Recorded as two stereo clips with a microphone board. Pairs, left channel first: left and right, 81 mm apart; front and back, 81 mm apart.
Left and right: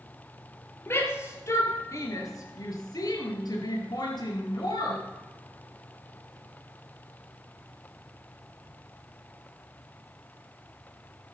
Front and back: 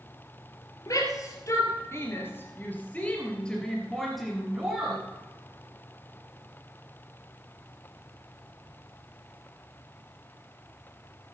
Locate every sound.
0.9 s a shout: 35° left, 3 m; by 5.0 s 100° left, 3 m